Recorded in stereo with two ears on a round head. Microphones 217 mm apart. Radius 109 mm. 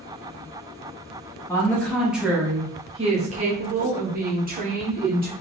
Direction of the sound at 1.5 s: 10° left (ahead or behind).